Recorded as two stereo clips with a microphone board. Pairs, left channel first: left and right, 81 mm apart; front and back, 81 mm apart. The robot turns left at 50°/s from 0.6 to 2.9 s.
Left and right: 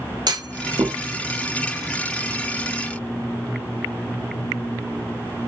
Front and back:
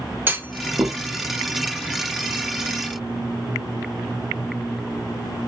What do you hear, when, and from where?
0.3 s a clunk: 115° right, 0.7 m; by 1.0 s 135° right, 0.7 m